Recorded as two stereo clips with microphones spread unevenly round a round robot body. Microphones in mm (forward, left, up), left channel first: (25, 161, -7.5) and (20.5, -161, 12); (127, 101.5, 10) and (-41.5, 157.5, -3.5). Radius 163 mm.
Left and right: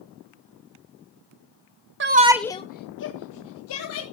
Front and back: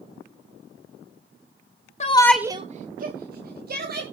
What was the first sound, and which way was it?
A shout, 50° right.